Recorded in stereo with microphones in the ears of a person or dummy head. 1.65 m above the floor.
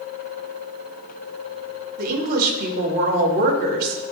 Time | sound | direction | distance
2.0 | a woman speaking | 55° right (ahead or behind) | 1.4 m